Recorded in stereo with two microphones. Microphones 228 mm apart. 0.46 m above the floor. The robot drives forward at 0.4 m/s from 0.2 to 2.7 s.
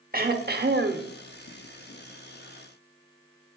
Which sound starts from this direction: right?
Throat clearing, at 0.1 s.